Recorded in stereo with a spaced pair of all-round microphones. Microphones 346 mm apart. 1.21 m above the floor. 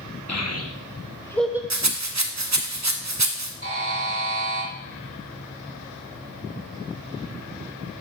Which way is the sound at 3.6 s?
40° right (ahead or behind).